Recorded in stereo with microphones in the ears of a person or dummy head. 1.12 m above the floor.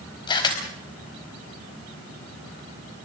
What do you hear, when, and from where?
0.3 s a camera shutter: 25° left (ahead or behind), 4.5 m